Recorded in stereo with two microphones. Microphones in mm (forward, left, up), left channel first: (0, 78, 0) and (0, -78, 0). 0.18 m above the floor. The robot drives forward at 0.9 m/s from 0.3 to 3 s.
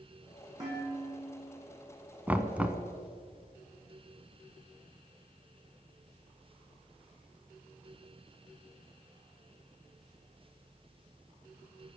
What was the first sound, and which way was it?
Dishes clattering, 30° right (ahead or behind).